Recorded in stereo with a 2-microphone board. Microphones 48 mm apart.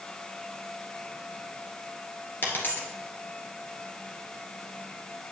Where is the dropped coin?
40° left (ahead or behind), 1.7 m.